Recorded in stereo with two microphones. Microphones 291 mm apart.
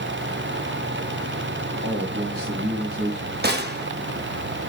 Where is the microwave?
No microwave in this recording.